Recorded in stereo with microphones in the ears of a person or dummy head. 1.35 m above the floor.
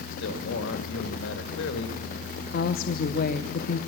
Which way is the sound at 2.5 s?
55° left (ahead or behind).